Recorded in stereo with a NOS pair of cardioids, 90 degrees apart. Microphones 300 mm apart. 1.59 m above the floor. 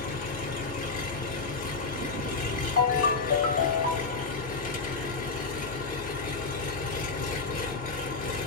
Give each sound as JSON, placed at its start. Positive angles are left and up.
{"t": 0.0, "sound": "an engine running", "azimuth_deg": 30, "distance_m": 1.7}
{"t": 2.8, "sound": "a ringtone", "azimuth_deg": 45, "distance_m": 1.9}